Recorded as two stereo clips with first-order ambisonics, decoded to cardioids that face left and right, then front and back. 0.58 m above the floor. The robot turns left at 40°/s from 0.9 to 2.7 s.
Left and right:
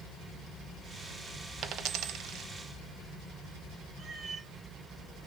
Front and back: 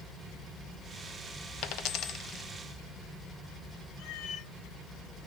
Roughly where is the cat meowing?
Ahead right.